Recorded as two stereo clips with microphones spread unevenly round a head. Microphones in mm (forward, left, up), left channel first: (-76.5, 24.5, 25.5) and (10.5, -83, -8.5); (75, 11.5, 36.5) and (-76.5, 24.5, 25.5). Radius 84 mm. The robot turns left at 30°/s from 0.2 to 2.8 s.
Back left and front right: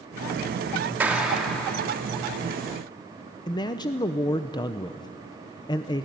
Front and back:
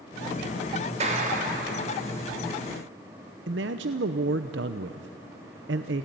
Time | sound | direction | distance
1.0 | a clap | 130° right | 3.5 m
3.5 | a man speaking | 175° left | 0.7 m